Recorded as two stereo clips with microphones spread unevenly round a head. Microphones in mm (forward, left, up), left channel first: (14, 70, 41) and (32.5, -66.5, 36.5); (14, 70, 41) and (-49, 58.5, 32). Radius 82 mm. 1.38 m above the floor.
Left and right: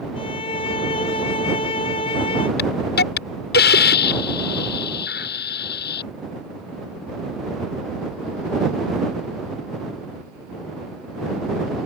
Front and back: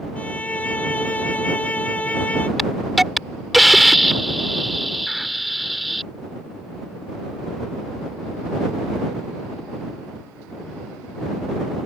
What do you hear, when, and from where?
0.1 s a violin: 60° left
2.6 s a hiss: 100° left